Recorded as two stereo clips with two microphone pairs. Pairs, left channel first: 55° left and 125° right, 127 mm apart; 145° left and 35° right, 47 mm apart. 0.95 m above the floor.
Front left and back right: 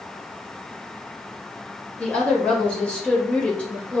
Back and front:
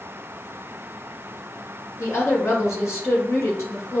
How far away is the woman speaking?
About 4 m.